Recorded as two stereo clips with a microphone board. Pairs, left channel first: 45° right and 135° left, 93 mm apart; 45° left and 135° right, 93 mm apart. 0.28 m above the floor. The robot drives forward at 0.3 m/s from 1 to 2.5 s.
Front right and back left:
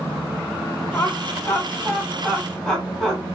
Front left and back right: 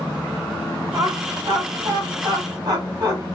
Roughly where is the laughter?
Right.